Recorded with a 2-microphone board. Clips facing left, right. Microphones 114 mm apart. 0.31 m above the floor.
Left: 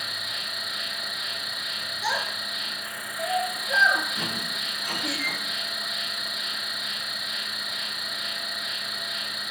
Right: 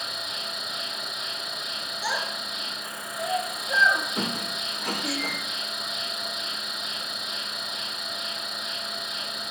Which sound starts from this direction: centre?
A child speaking, at 2.0 s.